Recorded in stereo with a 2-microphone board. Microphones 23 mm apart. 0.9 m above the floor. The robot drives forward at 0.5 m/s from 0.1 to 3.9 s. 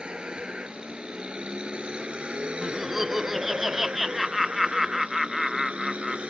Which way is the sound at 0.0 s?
40° right (ahead or behind).